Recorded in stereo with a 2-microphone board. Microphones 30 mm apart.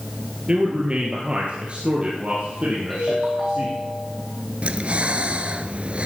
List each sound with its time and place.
0.5 s a man speaking: 35° right (ahead or behind), 3 m; by 3.8 s 50° right (ahead or behind), 5 m
2.9 s a ringtone: 5° right (ahead or behind), 9.5 m
4.6 s breathing: 45° right (ahead or behind), 1.0 m